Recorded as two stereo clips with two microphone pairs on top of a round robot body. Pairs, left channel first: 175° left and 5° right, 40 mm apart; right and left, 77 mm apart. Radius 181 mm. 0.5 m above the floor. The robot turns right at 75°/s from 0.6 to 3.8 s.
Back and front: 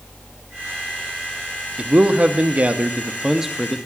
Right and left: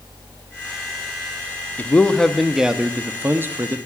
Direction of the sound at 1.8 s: 50° right.